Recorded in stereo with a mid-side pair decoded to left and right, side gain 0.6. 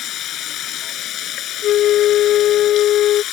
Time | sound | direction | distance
0.0 | running water | 55° left | ?
1.6 | a flute | 60° left | ?